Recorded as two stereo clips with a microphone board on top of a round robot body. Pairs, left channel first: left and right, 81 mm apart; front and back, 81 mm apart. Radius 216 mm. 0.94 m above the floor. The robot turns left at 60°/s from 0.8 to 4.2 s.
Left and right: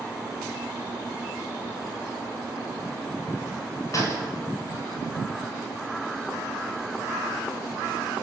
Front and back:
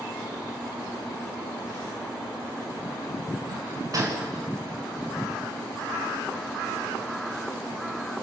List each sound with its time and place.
3.9 s a gunshot: 140° left, 7 m; by 4.3 s 120° left, 7 m